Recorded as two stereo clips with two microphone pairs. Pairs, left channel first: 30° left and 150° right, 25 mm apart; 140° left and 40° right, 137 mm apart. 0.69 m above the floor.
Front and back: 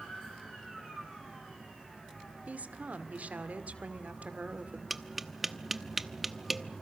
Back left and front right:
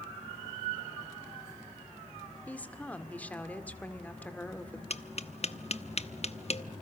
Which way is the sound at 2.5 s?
140° right.